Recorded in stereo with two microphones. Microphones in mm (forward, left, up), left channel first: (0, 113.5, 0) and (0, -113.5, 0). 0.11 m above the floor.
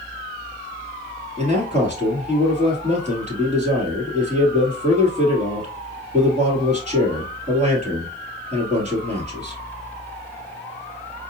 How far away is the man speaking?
About 1.9 m.